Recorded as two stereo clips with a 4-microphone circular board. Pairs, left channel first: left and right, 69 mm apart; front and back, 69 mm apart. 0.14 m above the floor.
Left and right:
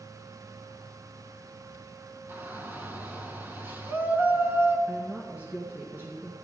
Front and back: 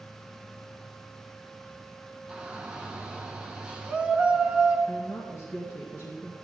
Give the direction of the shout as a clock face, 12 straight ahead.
4 o'clock.